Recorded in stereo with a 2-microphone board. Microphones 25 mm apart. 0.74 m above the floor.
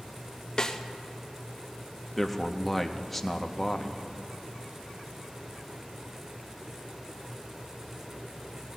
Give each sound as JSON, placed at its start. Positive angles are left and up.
{"t": 0.6, "sound": "a snare drum", "side_deg": 30, "distance_m": 0.7}
{"t": 2.2, "sound": "a man speaking", "side_deg": 5, "distance_m": 0.7}